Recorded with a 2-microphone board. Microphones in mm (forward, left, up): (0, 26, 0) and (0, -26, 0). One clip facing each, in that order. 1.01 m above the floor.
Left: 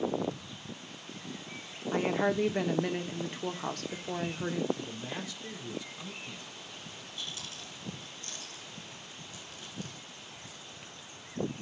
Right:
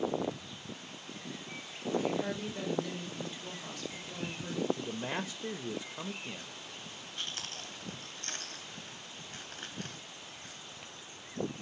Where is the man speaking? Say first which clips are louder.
Right 3 dB; 45° right (ahead or behind), 1.0 m.